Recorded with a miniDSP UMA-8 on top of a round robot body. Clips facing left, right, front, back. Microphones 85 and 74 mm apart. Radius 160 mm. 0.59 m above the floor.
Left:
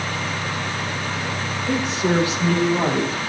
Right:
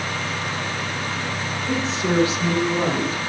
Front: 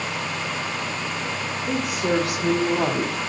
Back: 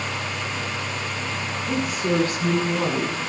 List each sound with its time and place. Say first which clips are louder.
1.7 s a woman speaking: left 2 dB, even; 15° left, 8.5 m; by 3.3 s 30° left, 7.5 m